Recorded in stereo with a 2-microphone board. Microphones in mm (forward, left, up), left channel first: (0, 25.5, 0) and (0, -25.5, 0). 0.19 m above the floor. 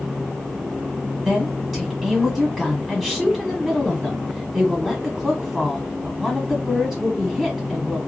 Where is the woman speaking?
Centre (ahead or behind), 1.2 m.